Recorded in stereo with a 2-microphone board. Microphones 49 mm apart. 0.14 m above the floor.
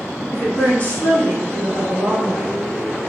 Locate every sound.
0.3 s a woman speaking: 35° left (ahead or behind), 1.2 m; by 2.5 s 25° left (ahead or behind), 2.5 m